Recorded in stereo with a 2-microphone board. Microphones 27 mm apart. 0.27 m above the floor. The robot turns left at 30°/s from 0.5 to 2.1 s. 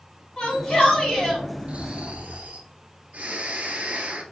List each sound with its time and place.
0.4 s a shout: 45° left (ahead or behind), 2 m; by 1.4 s 25° left (ahead or behind), 2 m
1.7 s snoring: 50° right (ahead or behind), 1.0 m; by 4.2 s 60° right (ahead or behind), 1.0 m